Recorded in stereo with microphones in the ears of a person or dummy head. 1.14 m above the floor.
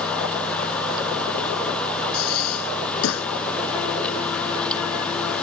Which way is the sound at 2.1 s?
85° left.